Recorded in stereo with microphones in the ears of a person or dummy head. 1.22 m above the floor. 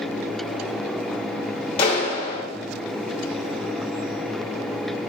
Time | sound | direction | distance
1.8 | a clap | 35° left (ahead or behind) | 2 m